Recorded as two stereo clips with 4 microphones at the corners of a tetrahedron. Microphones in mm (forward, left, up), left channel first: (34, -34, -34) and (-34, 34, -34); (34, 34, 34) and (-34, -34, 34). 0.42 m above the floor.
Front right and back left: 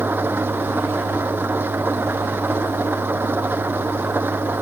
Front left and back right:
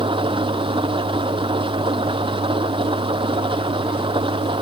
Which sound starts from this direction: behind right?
An engine running, at 0.0 s.